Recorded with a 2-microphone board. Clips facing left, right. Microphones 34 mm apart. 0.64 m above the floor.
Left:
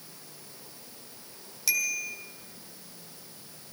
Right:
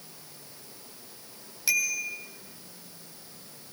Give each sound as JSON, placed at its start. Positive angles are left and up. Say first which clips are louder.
{"t": 1.7, "sound": "a bicycle bell", "louder": "right 2 dB", "side_deg": -15, "distance_m": 3.0}